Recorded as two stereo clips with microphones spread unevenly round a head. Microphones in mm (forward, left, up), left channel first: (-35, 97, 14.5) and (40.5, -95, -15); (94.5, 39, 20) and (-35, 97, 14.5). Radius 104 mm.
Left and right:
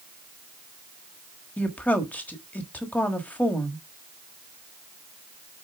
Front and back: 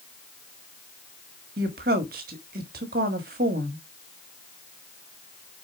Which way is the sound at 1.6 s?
165° right.